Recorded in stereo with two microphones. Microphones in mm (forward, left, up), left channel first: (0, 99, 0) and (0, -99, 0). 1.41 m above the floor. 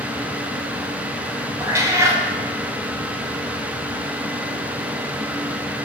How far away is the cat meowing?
About 0.8 m.